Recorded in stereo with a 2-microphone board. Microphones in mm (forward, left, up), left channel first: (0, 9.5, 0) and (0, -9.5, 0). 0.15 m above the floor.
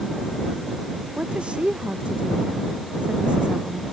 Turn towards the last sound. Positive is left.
turn(degrees=-65)  # may be behind; listen again after turning